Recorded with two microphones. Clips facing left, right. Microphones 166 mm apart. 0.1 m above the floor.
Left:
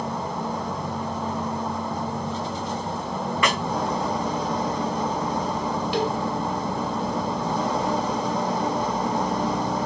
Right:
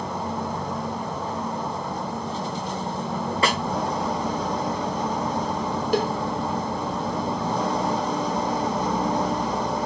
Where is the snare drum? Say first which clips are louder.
Right 1 dB; 35° right (ahead or behind), 0.6 m.